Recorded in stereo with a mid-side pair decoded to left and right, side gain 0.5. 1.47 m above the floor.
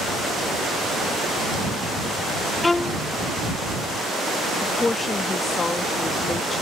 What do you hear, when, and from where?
2.6 s a violin: 20° left
4.6 s a woman speaking: 25° left